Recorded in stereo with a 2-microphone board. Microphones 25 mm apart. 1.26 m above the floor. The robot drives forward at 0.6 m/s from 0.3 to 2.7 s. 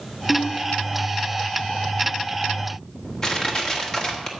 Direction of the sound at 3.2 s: 30° left (ahead or behind).